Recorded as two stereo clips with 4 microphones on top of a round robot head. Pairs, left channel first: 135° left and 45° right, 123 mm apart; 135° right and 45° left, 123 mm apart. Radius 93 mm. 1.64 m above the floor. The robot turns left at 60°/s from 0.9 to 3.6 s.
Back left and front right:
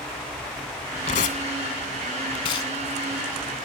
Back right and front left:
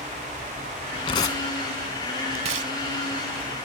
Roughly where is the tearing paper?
Behind.